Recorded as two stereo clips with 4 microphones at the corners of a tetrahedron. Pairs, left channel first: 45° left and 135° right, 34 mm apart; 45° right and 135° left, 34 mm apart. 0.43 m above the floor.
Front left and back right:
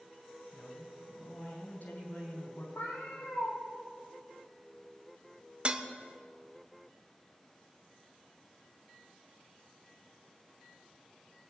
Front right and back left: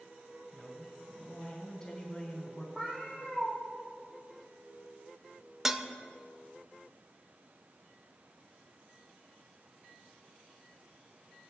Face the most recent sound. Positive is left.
turn(degrees=-155)